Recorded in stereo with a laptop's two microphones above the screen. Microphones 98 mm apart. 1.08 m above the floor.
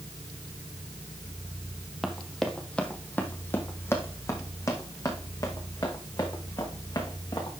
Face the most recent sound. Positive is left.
turn(degrees=40)  # may be behind; listen again after turning